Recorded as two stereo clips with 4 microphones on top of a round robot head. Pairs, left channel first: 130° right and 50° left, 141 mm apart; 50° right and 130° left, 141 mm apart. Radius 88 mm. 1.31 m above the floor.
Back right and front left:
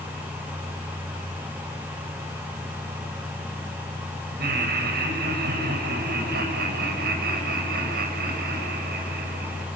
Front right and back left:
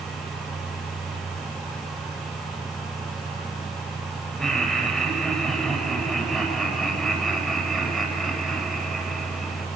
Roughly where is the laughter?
Ahead left.